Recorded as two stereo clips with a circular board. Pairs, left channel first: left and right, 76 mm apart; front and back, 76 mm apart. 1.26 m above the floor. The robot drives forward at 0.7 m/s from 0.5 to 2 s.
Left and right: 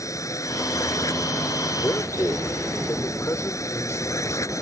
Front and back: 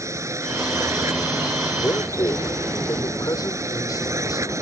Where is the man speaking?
35° left.